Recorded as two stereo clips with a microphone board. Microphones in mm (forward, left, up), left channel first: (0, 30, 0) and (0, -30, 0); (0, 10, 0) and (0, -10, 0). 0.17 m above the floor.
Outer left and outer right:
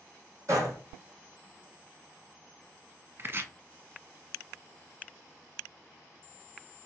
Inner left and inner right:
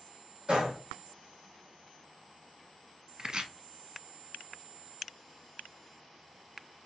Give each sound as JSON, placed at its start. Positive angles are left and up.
{"t": 0.5, "sound": "a gunshot", "side_deg": -55, "distance_m": 2.5}
{"t": 3.2, "sound": "chopping", "side_deg": -40, "distance_m": 0.7}